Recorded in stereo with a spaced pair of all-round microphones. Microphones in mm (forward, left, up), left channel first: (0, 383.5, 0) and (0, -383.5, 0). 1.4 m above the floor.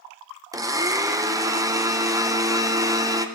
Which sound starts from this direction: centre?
A blender, at 0.5 s.